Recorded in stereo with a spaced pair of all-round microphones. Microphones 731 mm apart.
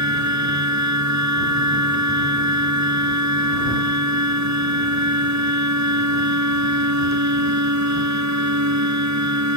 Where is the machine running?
20° right (ahead or behind).